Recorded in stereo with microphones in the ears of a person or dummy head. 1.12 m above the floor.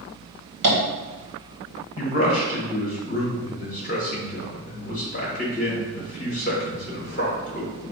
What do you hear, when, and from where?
0.6 s tapping: 60° right (ahead or behind), 1.5 m
2.0 s a man speaking: 45° left (ahead or behind), 1.3 m